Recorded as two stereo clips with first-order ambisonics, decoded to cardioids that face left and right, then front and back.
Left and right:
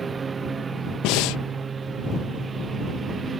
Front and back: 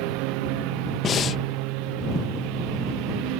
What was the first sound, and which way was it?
A lawn mower, 165° right.